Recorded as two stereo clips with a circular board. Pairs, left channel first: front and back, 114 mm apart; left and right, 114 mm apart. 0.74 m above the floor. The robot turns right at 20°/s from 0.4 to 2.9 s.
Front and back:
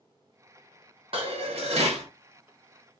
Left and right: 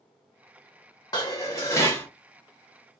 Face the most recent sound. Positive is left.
turn(degrees=180)